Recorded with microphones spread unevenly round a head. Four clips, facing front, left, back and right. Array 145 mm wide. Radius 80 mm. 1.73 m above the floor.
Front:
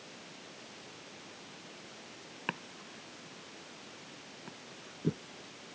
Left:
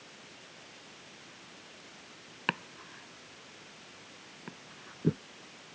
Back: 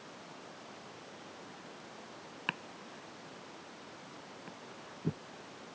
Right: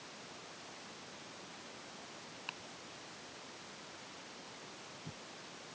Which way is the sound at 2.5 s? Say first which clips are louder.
Left 18 dB, front 1 dB; 70° left.